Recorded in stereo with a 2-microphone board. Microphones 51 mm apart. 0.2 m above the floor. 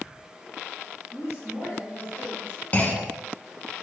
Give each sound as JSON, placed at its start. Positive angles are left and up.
{"t": 1.1, "sound": "a woman speaking", "side_deg": 45, "distance_m": 2.0}
{"t": 2.7, "sound": "a clunk", "side_deg": 35, "distance_m": 0.5}